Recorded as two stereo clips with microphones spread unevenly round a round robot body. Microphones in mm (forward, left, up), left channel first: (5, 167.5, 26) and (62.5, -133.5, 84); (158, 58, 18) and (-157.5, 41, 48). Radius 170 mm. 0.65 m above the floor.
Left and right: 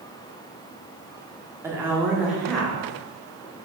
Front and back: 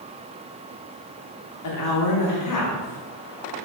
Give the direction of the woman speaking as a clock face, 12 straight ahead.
12 o'clock.